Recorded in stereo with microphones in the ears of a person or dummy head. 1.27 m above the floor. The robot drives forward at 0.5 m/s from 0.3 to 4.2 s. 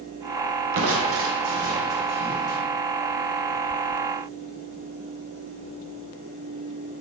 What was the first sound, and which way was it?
Crushing, 70° right (ahead or behind).